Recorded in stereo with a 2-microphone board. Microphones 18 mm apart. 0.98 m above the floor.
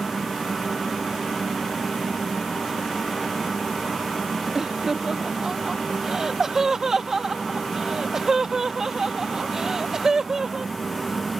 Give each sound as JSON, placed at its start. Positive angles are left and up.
{"t": 4.5, "sound": "laughter", "side_deg": -30}